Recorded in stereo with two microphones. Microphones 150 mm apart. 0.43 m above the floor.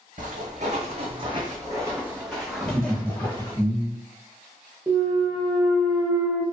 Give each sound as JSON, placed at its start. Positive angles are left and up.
{"t": 0.2, "sound": "footsteps", "side_deg": -60, "distance_m": 1.2}
{"t": 2.6, "sound": "laughter", "side_deg": -20, "distance_m": 0.8}
{"t": 4.9, "sound": "a clunk", "side_deg": -15, "distance_m": 0.8}